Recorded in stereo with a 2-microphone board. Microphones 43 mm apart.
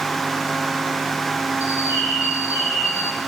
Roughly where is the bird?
Left.